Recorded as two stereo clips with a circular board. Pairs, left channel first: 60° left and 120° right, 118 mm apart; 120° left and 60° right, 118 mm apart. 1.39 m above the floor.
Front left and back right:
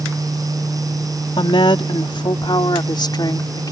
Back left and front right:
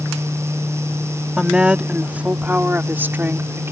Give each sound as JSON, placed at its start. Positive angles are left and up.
{"t": 1.4, "sound": "a woman speaking", "azimuth_deg": 25}